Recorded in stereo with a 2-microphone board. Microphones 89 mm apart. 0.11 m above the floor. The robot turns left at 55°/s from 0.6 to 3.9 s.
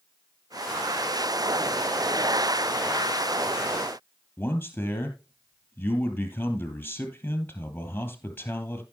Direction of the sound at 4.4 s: 20° left (ahead or behind).